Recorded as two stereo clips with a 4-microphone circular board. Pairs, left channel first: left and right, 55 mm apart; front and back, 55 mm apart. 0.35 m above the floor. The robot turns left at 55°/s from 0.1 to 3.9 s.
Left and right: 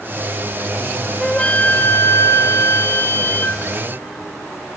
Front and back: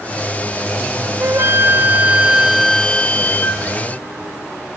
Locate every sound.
1.2 s a flute: 165° left, 0.6 m; by 3.7 s 30° left, 0.6 m